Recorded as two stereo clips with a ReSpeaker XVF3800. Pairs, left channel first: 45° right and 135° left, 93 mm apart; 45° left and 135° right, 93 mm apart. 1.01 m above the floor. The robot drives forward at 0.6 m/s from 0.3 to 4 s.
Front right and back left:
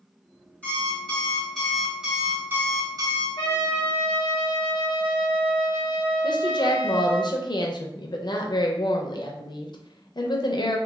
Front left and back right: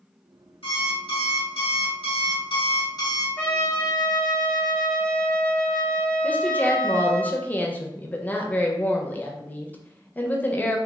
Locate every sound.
0.6 s an alarm clock: 30° left, 1.7 m; by 3.3 s 95° left, 0.8 m
3.4 s a trumpet: 25° right, 1.3 m; by 7.2 s 35° right, 1.0 m
6.2 s a woman speaking: 25° right, 0.5 m